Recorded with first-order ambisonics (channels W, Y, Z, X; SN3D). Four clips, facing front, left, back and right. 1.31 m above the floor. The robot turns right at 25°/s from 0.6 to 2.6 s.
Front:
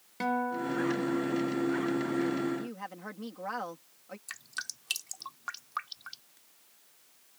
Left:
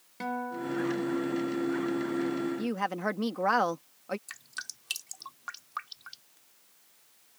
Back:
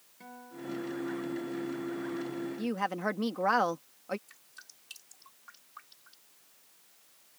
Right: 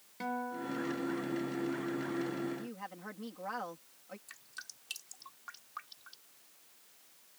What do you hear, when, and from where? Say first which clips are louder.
0.2 s a guitar: left 4 dB, front 14 dB; 15° left; by 1.4 s 35° left
2.6 s a woman speaking: left 14 dB, back 8 dB; 125° left
4.3 s dripping: left 8 dB, front 14 dB; 35° left